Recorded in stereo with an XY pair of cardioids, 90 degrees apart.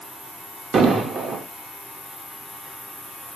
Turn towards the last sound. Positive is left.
turn(degrees=-70)